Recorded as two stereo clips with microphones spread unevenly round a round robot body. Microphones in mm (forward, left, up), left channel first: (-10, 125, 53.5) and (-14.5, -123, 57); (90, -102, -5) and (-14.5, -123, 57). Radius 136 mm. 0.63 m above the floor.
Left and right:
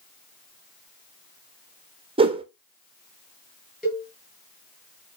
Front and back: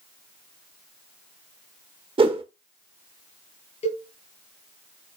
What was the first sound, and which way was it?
A whoosh, 125° right.